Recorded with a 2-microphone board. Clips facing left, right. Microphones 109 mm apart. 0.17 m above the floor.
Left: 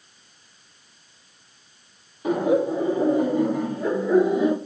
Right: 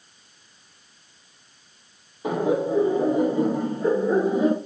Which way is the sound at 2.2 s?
25° right (ahead or behind).